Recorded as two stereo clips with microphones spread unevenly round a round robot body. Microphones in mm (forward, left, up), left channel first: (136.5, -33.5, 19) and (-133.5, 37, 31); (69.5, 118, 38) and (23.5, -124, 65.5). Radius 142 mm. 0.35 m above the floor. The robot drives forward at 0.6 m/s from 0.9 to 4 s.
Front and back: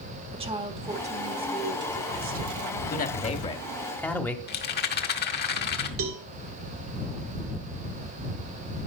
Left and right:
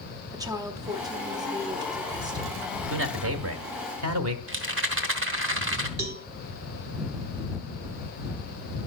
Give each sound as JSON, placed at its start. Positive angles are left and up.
{"t": 0.3, "sound": "a woman speaking", "azimuth_deg": -165, "distance_m": 1.3}
{"t": 2.9, "sound": "a man speaking", "azimuth_deg": -70, "distance_m": 1.6}
{"t": 4.5, "sound": "a rattle", "azimuth_deg": -65, "distance_m": 1.8}
{"t": 6.0, "sound": "a cowbell", "azimuth_deg": -150, "distance_m": 1.6}